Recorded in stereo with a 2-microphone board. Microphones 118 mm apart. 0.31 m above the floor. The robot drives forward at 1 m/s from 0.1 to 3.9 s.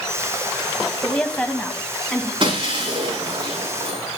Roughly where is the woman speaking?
Centre.